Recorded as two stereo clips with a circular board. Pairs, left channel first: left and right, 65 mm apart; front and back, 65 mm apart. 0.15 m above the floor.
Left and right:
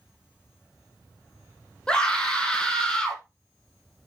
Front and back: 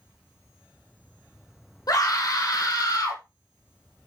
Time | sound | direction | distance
1.9 | a scream | 10° left | 7 m